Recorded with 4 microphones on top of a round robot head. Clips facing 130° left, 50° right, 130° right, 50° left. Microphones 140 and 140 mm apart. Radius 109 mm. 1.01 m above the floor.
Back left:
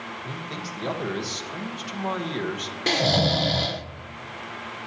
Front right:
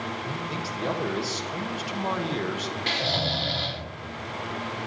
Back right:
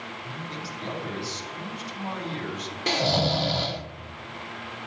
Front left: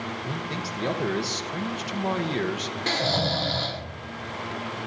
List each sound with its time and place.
0.2 s a man speaking: 35° left, 1.1 m
2.9 s snoring: 160° left, 0.6 m